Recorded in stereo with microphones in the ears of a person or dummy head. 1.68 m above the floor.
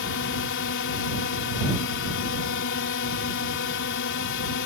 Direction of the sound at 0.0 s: 75° left (ahead or behind).